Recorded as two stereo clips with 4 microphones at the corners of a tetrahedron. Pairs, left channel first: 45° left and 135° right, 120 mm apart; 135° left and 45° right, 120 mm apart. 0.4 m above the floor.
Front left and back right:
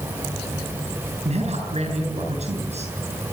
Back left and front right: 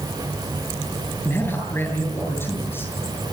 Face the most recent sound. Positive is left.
turn(degrees=-155)